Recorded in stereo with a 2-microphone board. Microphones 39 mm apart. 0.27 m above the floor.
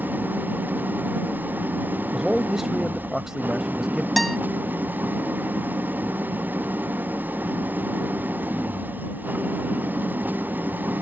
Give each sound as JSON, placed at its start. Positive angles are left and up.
{"t": 0.0, "sound": "an engine running", "side_deg": -55}
{"t": 2.1, "sound": "a man speaking", "side_deg": -10}
{"t": 4.2, "sound": "a guitar", "side_deg": 5}